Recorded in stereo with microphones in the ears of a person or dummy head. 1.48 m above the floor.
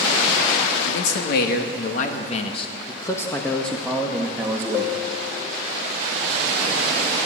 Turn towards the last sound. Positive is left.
turn(degrees=-20)  # may be behind; listen again after turning